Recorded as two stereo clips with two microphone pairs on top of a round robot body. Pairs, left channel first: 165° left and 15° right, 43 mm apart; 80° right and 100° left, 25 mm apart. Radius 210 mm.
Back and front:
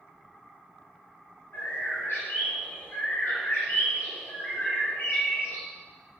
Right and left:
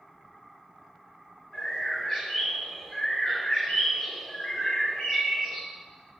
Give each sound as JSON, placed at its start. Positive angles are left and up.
{"t": 1.5, "sound": "a bird", "azimuth_deg": -155, "distance_m": 1.5}